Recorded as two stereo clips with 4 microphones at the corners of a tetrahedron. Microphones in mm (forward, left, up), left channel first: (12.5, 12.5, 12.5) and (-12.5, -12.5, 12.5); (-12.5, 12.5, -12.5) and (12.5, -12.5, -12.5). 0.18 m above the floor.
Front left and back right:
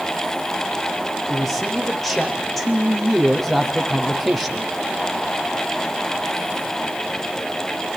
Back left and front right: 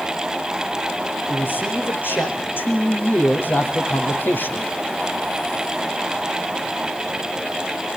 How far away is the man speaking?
About 8.5 m.